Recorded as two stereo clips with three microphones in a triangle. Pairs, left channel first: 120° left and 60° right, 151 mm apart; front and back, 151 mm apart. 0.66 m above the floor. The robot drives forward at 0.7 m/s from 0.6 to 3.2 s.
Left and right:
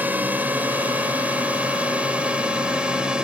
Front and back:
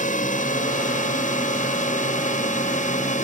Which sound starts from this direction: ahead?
A drone, at 0.0 s.